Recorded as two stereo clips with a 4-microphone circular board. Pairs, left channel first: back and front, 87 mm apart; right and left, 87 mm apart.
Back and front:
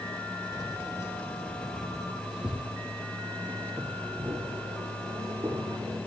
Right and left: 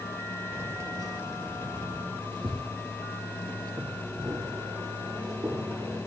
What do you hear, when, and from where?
0.5 s keys jangling: 150° left, 2 m; by 6.0 s 50° left, 7 m